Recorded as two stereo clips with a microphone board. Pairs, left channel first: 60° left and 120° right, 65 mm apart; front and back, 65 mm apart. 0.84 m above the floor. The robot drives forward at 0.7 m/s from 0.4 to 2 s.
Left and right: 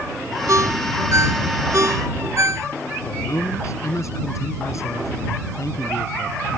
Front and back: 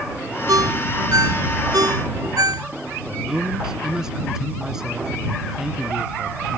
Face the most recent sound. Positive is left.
turn(degrees=100)